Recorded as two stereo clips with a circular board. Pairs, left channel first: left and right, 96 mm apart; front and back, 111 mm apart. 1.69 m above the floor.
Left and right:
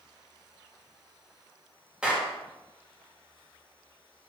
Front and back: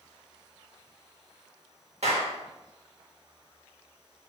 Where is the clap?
170° right, 1.8 m.